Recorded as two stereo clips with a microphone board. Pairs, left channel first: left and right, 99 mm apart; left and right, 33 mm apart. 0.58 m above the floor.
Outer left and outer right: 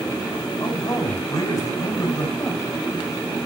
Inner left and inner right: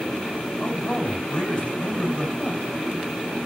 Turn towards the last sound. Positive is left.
turn(degrees=35)  # may be behind; listen again after turning